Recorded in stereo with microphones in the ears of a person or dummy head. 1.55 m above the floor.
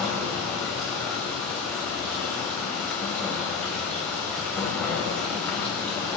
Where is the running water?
Centre (ahead or behind), 2 m.